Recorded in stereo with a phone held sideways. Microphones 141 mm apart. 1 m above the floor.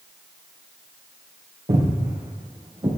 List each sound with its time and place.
1.7 s footsteps: 55° right (ahead or behind), 3 m; by 2.9 s 40° right (ahead or behind), 2 m